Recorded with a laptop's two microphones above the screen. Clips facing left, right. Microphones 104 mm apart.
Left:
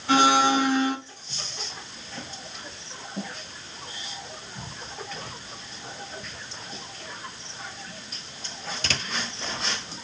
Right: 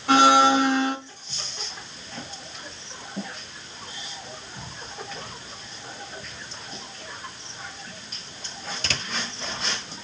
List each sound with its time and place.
0.1 s a blender: 85° right, 2 m